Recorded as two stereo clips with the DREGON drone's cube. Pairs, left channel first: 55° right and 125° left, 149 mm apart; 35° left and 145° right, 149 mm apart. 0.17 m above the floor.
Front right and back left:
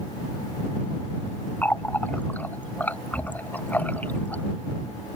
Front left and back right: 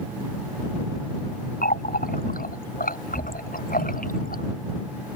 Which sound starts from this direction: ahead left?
A running tap, at 1.6 s.